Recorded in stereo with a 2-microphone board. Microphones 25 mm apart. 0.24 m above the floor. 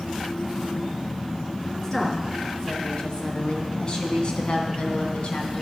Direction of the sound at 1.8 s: 25° left (ahead or behind).